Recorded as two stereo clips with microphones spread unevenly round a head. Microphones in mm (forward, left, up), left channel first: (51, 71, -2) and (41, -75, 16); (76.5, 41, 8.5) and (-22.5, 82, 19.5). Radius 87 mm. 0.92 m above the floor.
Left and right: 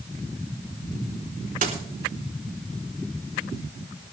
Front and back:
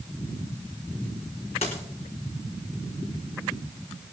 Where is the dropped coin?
80° right, 3.5 m.